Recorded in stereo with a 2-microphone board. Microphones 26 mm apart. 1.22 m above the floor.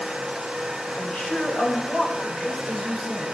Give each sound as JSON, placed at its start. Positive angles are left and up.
{"t": 0.9, "sound": "a woman speaking", "side_deg": 85, "distance_m": 5.5}